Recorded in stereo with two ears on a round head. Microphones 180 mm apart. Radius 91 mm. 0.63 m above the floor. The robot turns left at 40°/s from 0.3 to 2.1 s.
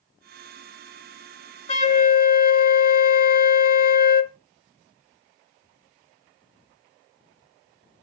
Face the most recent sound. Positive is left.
turn(degrees=45)  # may be behind; listen again after turning